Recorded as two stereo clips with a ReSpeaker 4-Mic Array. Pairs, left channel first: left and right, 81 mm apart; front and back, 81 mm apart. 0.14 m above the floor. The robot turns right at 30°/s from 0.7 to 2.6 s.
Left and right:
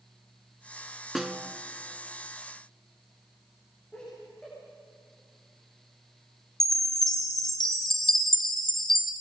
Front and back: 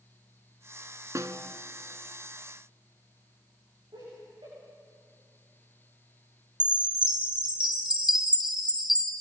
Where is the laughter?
170° left, 9.5 m.